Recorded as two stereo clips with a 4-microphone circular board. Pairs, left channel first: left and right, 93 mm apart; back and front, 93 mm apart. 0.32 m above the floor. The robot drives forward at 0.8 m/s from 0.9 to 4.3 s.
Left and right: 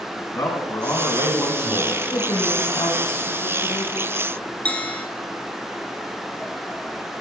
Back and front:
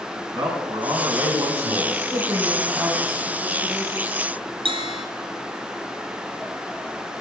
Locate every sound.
0.3 s a man speaking: 30° left, 2.5 m; by 2.0 s 50° left, 1.8 m
2.1 s a woman speaking: 60° left, 2.5 m; by 4.0 s 100° left, 2.5 m
4.7 s a bell: 15° left, 1.5 m